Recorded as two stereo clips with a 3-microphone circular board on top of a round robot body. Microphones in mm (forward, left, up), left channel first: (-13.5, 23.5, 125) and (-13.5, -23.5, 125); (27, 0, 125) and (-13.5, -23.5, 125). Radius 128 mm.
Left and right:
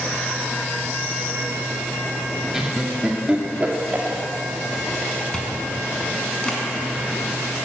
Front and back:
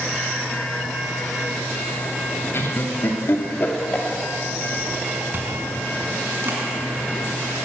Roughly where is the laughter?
Ahead.